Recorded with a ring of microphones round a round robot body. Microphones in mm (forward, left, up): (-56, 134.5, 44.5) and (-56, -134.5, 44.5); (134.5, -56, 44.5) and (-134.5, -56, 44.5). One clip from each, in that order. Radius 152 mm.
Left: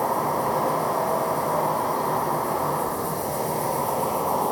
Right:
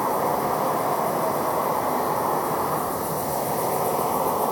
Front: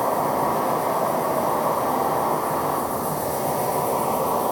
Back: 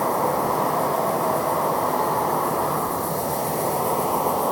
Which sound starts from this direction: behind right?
An insect, at 0.0 s.